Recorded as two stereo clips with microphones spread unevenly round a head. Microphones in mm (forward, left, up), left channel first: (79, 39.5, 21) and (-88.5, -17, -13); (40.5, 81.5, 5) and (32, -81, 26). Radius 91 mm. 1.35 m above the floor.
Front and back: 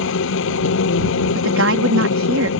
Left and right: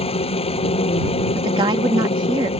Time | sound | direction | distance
0.0 | a machine running | 30° left | ?
1.4 | a woman speaking | 160° right | ?